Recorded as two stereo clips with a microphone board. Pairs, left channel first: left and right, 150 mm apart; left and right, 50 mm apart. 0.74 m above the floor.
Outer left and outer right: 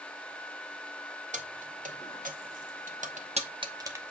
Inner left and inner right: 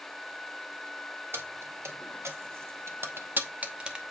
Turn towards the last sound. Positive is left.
turn(degrees=-10)  # may be behind; listen again after turning